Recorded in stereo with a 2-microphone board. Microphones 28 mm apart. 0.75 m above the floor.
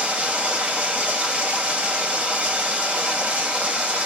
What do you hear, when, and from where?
0.0 s running water: 45° right (ahead or behind), 1.2 m